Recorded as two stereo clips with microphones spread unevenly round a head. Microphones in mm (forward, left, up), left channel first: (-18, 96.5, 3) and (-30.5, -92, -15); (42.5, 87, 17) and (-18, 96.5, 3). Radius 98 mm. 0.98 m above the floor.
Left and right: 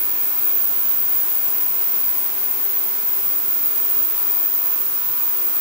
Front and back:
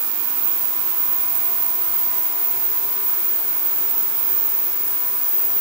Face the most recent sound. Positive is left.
No sound to turn to.